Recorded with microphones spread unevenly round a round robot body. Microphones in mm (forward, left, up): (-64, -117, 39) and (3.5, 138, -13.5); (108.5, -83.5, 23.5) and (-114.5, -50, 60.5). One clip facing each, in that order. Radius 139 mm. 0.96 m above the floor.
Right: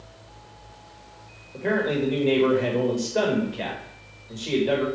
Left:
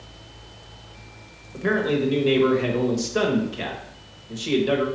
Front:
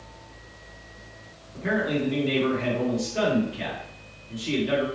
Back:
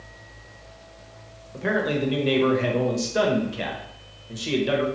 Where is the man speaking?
135° left, 0.9 m.